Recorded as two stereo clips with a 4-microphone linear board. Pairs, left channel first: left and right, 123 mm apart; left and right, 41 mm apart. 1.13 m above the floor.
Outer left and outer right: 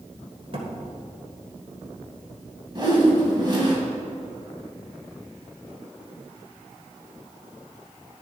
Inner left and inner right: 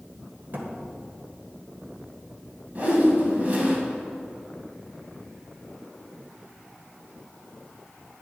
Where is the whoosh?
35° right (ahead or behind), 2.5 m.